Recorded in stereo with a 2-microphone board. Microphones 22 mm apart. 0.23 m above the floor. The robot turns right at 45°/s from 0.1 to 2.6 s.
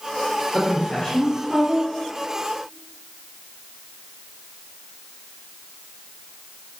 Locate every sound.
0.5 s a woman speaking: 150° left, 3 m; by 1.9 s 150° right, 3 m